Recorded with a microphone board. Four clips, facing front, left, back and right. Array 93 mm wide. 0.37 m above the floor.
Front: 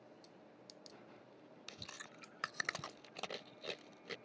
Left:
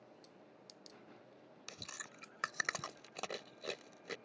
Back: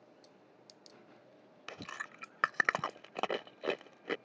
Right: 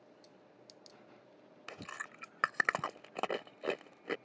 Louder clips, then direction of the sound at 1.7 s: Right 7 dB, back 11 dB; 145° right.